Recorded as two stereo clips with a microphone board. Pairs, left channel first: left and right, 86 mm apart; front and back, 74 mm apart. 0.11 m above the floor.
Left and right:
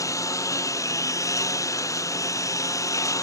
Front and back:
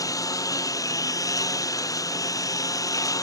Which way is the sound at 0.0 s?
40° left.